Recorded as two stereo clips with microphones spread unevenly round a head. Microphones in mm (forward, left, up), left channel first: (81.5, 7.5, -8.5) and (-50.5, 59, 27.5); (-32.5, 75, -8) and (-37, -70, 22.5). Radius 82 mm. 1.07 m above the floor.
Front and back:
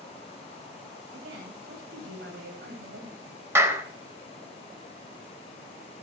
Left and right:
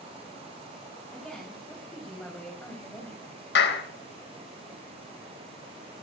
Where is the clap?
90° left, 3.5 m.